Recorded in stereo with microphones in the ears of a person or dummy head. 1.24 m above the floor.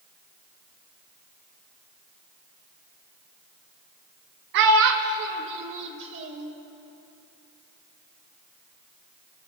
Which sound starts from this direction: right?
A child speaking, at 4.5 s.